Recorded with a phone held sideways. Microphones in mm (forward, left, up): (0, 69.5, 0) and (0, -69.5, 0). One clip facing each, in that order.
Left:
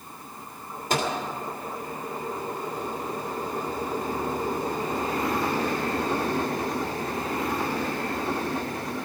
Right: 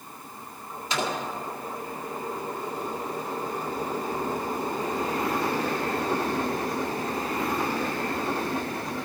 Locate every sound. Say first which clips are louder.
0.9 s a microwave: left 3 dB; 50° left (ahead or behind), 2.5 m